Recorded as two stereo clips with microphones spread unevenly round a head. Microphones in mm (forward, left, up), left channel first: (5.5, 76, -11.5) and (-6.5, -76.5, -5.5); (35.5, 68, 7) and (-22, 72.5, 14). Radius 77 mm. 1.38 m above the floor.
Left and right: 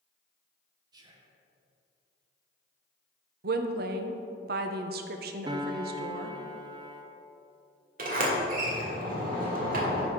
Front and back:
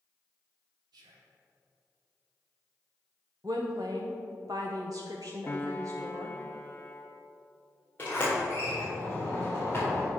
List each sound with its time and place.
0.9 s whispering: 160° right, 1.1 m
3.4 s a woman speaking: 120° right, 0.7 m
5.5 s a piano: 65° right, 0.5 m
8.0 s a sliding door: 80° right, 1.6 m